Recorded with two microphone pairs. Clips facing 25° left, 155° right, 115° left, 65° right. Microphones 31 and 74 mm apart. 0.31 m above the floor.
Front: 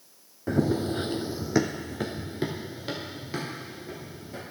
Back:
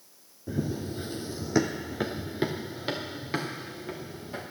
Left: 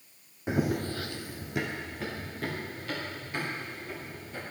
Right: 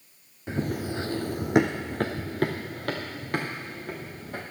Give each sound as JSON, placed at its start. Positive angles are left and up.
{"t": 0.5, "sound": "running footsteps", "azimuth_deg": 45, "distance_m": 0.7}